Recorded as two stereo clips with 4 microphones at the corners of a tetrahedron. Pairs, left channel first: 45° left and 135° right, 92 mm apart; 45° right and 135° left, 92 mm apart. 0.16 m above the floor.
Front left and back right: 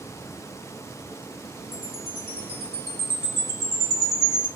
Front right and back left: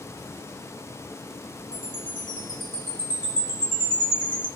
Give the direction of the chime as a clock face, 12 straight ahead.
12 o'clock.